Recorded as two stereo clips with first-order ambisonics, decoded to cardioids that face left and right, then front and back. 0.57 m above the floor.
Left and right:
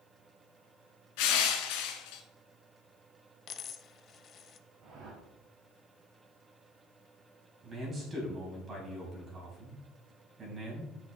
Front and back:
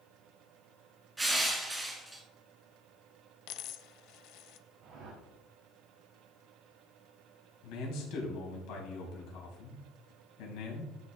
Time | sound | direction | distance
1.2 | crushing | 95° left | 1.8 m
3.5 | a dropped coin | 30° left | 0.6 m
4.8 | a whoosh | 135° right | 3 m
7.6 | a man speaking | 20° right | 3.5 m